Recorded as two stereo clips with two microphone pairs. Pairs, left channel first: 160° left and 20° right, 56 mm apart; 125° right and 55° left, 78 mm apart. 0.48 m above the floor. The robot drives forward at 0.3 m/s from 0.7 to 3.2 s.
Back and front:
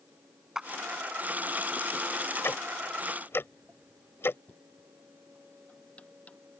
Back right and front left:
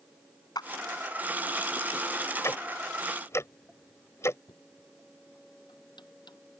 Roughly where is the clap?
Right.